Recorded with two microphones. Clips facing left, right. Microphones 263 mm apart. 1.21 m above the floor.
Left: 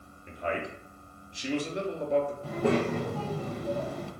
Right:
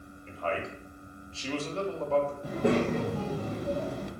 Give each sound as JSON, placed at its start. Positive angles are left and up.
{"t": 0.3, "sound": "a man speaking", "side_deg": 20, "distance_m": 0.7}
{"t": 2.4, "sound": "a child speaking", "side_deg": -15, "distance_m": 0.5}